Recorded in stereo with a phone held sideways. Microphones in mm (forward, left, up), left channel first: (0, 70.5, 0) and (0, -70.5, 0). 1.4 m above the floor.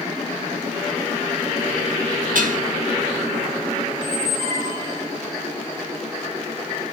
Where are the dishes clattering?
75° right (ahead or behind), 1.5 m.